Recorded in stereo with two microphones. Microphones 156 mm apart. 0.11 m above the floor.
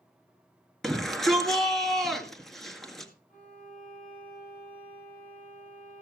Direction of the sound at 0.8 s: Centre (ahead or behind).